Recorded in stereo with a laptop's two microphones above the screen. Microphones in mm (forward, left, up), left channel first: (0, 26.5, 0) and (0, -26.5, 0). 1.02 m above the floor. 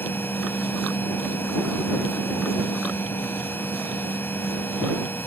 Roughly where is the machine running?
Left.